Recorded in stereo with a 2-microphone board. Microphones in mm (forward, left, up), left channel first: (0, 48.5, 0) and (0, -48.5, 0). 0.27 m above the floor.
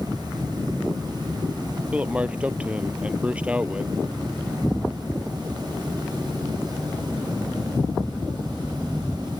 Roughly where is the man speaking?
Centre.